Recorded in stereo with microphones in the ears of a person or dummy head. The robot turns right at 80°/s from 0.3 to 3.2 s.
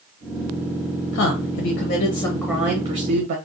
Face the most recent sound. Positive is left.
turn(degrees=-130)